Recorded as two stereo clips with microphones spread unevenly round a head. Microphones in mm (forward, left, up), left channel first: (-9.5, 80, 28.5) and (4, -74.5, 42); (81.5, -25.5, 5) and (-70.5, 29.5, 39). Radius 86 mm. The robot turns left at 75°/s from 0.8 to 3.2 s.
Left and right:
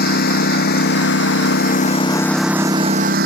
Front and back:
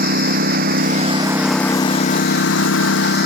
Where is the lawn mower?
125° left; by 3.3 s 55° right.